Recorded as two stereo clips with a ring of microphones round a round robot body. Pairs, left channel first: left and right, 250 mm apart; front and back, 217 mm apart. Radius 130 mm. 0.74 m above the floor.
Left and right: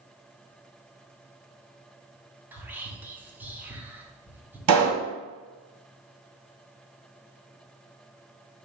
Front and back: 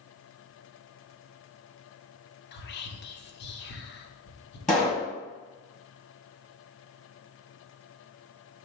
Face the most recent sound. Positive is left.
turn(degrees=-90)